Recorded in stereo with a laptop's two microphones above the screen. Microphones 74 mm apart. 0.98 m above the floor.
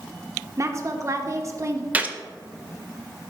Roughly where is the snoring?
No snoring in this recording.